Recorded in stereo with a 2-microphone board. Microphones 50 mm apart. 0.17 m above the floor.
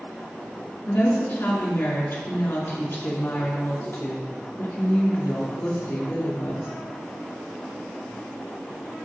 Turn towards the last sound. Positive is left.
turn(degrees=55)  # may be behind; listen again after turning